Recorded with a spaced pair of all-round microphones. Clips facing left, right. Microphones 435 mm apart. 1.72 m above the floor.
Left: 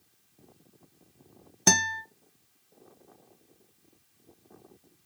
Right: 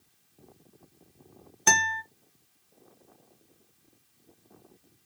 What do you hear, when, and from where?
1.7 s a guitar: 60° left (ahead or behind), 0.6 m